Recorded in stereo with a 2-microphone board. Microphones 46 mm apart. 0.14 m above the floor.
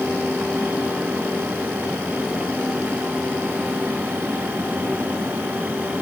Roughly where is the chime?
No chime in this recording.